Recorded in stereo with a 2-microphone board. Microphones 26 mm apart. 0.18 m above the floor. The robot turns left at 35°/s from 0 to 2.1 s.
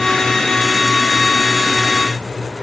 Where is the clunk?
I don't hear a clunk.